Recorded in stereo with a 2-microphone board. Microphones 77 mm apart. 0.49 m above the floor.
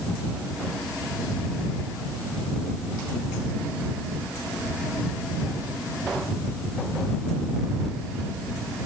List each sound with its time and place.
Only background noise.